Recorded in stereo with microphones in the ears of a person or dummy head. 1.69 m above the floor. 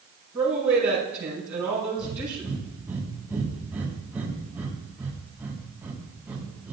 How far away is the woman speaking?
About 6.5 m.